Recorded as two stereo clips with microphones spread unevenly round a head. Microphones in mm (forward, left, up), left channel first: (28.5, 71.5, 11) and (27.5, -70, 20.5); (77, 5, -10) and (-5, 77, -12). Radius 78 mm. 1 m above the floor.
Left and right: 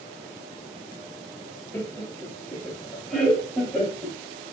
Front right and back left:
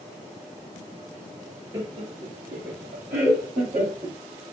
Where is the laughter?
145° left, 0.8 m; by 4.2 s 175° left, 2.5 m.